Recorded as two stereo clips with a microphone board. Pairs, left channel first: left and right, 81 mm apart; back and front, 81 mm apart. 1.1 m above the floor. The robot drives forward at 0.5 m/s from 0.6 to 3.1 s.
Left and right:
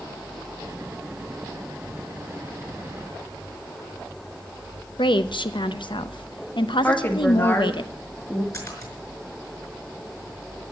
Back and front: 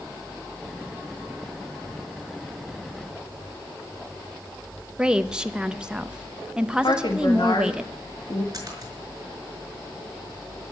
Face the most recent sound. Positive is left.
turn(degrees=45)